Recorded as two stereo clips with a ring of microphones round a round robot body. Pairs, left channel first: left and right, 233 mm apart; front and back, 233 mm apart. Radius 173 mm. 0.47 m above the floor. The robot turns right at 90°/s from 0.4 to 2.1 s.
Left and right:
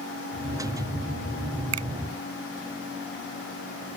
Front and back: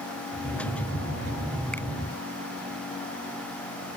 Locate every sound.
1.7 s a finger snap: 90° right; by 1.9 s 75° right